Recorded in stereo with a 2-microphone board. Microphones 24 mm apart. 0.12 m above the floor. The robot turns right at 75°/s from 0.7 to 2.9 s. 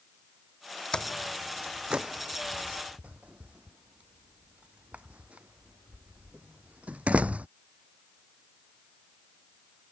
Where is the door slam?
25° left (ahead or behind); by 7.5 s 55° right (ahead or behind).